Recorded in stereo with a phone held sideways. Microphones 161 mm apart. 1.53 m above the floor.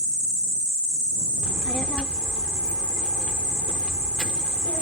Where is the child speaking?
5° left (ahead or behind).